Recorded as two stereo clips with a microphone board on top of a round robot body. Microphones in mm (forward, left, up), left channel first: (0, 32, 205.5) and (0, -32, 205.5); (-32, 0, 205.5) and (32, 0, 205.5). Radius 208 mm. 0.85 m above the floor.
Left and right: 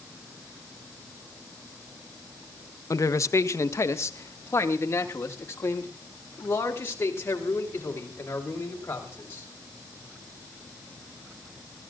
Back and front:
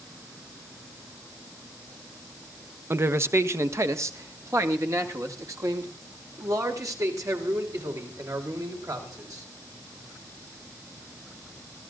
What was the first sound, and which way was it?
A man speaking, 50° left.